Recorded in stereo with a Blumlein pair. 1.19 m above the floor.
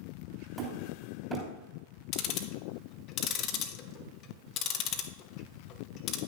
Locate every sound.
0.6 s hammering: 15° right, 3 m
2.1 s ticking: 35° left, 0.9 m